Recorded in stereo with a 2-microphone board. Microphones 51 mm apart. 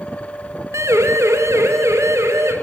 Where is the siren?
80° right, 3.5 m.